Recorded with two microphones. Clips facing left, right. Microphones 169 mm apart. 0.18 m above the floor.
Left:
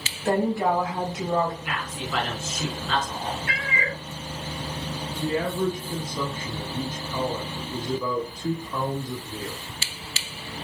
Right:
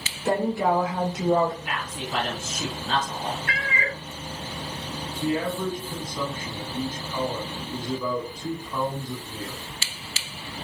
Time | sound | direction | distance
0.2 | a woman speaking | 15° right (ahead or behind) | 1.5 m
1.6 | a man speaking | 30° right (ahead or behind) | 1.9 m
3.5 | a cat meowing | 40° right (ahead or behind) | 0.7 m
5.2 | a man speaking | 5° left (ahead or behind) | 1.1 m